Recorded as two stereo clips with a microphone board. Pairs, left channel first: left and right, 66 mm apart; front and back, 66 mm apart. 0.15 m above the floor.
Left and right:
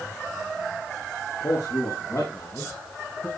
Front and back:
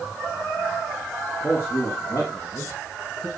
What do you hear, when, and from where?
1.4 s a man speaking: 50° left, 5 m; by 3.3 s 30° left, 3 m